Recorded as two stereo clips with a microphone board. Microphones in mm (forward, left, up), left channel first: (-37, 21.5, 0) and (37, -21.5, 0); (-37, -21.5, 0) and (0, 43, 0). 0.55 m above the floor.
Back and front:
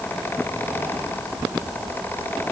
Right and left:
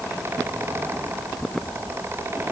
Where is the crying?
No crying in this recording.